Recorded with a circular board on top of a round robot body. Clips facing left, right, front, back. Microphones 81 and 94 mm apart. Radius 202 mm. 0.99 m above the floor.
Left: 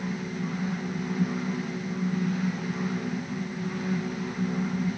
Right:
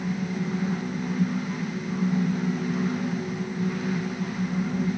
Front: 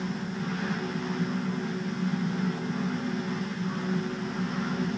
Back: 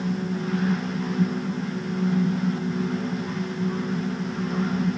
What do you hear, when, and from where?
Only background noise.